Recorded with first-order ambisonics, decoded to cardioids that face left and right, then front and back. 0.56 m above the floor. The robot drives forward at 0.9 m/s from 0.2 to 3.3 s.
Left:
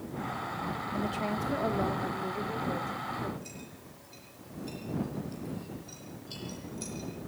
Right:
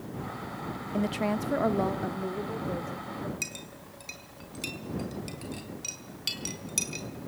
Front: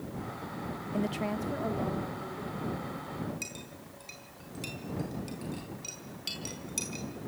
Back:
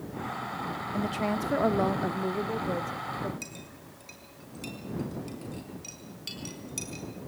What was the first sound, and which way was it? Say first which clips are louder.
A woman speaking: right 5 dB, back 2 dB; 60° right.